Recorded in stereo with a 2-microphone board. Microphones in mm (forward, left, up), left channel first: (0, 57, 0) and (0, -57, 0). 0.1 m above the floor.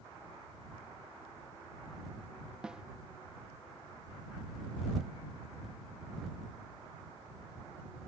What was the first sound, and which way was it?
A snare drum, 5° right (ahead or behind).